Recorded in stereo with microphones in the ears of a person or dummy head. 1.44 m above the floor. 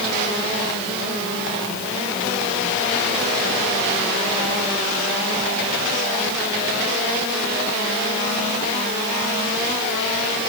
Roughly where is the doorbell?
No doorbell in this recording.